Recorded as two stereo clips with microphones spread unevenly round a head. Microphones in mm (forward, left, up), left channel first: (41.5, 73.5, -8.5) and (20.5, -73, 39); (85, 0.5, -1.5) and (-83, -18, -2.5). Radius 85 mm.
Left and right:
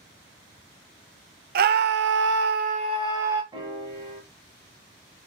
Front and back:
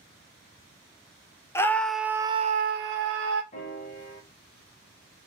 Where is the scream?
70° right, 0.8 m; by 3.4 s straight behind, 0.8 m.